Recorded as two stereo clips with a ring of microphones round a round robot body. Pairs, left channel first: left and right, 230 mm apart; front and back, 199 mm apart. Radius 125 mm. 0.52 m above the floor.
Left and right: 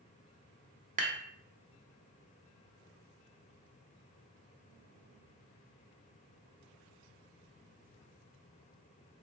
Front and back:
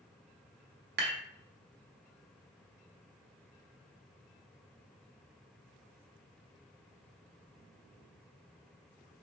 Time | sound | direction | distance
1.0 | dishes clattering | 145° right | 1.0 m